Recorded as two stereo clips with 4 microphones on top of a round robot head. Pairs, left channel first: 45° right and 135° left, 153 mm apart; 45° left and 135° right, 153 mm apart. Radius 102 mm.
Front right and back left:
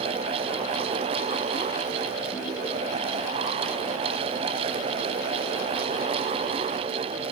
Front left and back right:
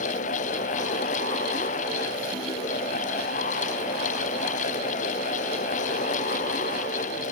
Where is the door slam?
No door slam in this recording.